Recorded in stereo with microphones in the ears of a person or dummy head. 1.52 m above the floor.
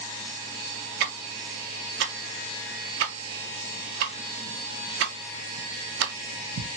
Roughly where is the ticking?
Right.